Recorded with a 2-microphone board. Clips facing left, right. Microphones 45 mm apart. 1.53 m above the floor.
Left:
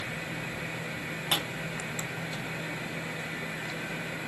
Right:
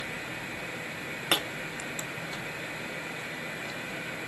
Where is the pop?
75° right (ahead or behind), 0.7 m.